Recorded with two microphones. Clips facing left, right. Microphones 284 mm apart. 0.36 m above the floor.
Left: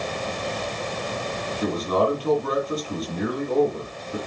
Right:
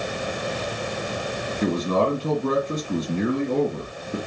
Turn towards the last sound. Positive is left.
turn(degrees=-30)  # may be behind; listen again after turning